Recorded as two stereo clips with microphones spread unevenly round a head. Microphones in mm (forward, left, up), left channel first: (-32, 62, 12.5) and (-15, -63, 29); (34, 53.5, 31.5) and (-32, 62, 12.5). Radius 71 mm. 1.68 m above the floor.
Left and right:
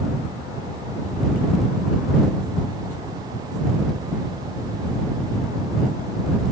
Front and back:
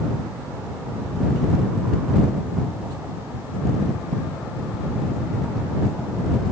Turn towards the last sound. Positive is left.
No sound to turn to.